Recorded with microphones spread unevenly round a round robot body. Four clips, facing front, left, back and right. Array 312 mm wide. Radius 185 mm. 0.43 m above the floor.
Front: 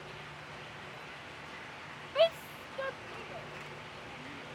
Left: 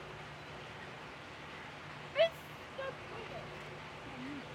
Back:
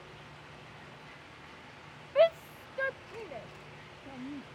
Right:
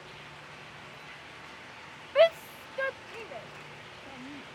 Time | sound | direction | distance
2.1 | a shout | 70° right | ?